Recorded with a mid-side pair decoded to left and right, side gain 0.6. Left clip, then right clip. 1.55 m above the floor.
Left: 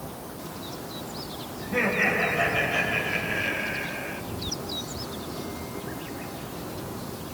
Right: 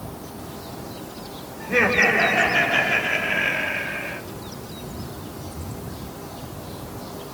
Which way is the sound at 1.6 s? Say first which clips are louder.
Right 6 dB; 60° right.